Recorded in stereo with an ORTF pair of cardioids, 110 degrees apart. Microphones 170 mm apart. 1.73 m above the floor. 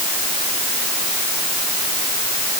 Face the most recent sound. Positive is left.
No sound to turn to.